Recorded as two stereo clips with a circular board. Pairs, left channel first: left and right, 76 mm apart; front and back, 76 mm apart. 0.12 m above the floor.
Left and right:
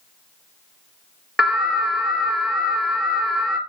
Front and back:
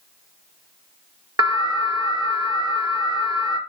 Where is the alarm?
170° right, 1.8 m.